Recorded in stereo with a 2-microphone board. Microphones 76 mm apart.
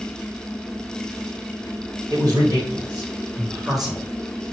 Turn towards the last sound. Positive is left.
turn(degrees=15)  # may be behind; listen again after turning